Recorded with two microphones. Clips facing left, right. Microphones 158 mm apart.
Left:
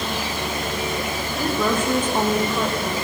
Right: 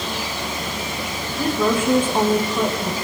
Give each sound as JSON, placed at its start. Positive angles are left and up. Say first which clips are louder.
{"t": 1.4, "sound": "a woman speaking", "louder": "right 3 dB", "side_deg": -10, "distance_m": 6.5}